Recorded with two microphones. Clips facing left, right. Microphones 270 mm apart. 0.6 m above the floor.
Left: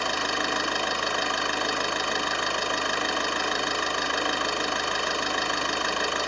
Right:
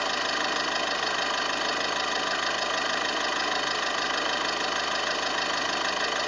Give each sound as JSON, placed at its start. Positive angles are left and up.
{"t": 0.0, "sound": "an engine running", "side_deg": 55, "distance_m": 0.8}